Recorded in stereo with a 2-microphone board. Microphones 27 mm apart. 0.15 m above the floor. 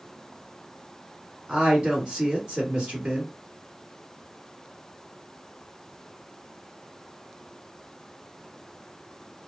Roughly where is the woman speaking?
Right.